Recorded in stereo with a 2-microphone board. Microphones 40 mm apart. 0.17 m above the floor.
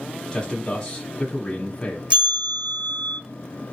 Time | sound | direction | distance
0.3 | a man speaking | 20° left (ahead or behind) | 1.1 m
2.1 | a bell | 30° right (ahead or behind) | 1.9 m